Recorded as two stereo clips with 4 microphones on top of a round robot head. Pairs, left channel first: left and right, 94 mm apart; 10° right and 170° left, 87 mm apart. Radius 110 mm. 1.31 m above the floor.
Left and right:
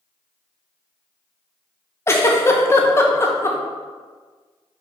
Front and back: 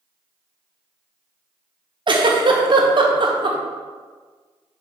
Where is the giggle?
150° left, 1.2 m.